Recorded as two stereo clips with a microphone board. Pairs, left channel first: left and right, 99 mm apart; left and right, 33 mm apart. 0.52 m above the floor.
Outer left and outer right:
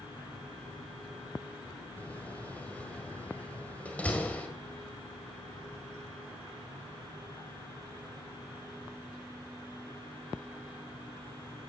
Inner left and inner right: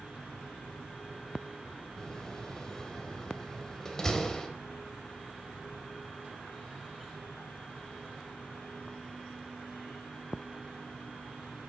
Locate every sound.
2.0 s a door slam: 15° left (ahead or behind), 1.8 m